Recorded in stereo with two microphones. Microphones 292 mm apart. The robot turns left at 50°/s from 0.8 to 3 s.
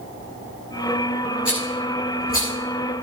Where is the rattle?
75° left (ahead or behind), 7.5 m; by 2.5 s 20° left (ahead or behind), 7.5 m.